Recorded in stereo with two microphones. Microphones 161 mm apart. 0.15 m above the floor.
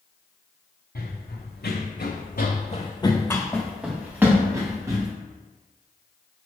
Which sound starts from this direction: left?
Running footsteps, at 0.9 s.